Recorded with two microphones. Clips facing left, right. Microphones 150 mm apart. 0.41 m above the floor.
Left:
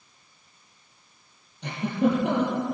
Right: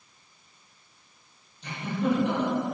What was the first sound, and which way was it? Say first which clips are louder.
A giggle: left 4 dB; 65° left (ahead or behind).